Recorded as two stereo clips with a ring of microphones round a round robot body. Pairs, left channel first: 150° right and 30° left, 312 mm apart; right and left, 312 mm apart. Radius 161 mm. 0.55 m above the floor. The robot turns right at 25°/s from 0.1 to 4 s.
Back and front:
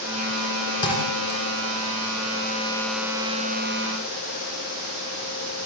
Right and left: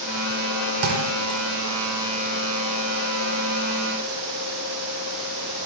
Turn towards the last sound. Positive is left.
turn(degrees=-145)